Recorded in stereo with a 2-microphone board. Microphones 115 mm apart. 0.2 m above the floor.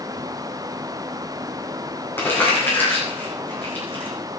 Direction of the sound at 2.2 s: 20° left (ahead or behind).